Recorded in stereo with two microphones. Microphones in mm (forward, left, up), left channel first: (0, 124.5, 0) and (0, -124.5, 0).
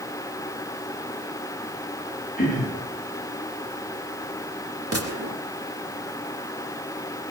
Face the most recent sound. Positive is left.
turn(degrees=-70)  # may be behind; listen again after turning